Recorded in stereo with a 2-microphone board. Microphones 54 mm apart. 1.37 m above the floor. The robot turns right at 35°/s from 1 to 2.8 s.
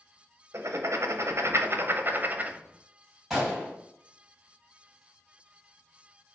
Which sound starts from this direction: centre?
A gunshot, at 3.3 s.